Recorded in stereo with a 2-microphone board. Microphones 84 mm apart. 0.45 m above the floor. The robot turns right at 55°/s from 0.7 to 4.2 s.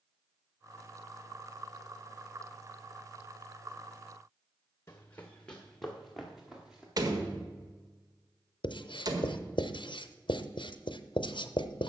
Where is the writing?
70° left (ahead or behind), 0.6 m.